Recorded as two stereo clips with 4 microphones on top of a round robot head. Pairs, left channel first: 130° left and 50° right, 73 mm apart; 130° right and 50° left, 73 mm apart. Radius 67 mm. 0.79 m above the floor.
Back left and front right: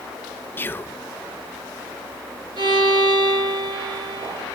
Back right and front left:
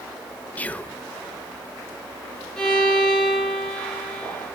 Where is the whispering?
170° left, 0.6 m.